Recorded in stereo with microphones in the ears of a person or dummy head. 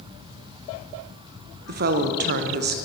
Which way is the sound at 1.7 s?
50° right (ahead or behind).